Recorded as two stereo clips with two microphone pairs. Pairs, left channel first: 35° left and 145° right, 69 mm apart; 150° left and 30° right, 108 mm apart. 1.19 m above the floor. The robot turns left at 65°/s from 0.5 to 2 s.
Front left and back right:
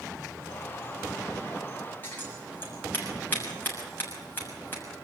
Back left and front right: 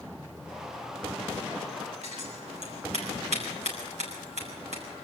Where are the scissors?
30° right, 6.5 m.